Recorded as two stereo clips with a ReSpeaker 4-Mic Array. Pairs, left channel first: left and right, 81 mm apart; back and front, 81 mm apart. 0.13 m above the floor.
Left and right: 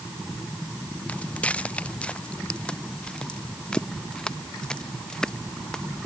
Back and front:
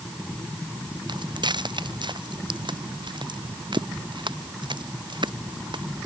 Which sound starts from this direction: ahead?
Footsteps, at 1.1 s.